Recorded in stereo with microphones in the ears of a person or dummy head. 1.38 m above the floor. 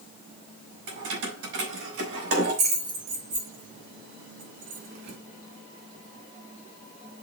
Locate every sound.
0.9 s keys jangling: 80° right, 4.5 m; by 5.2 s 60° right (ahead or behind), 1.9 m